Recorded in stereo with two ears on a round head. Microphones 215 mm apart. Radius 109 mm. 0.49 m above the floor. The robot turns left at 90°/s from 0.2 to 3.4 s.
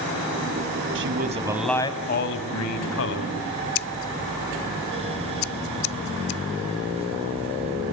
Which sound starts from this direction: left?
Scissors, at 3.8 s.